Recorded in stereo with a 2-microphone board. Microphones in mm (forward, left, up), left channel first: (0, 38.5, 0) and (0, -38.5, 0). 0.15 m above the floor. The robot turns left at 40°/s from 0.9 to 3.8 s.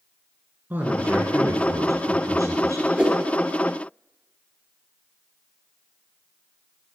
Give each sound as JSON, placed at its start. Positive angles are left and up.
{"t": 0.7, "sound": "a man speaking", "azimuth_deg": -35, "distance_m": 2.0}
{"t": 3.0, "sound": "a whoosh", "side_deg": -15, "distance_m": 1.7}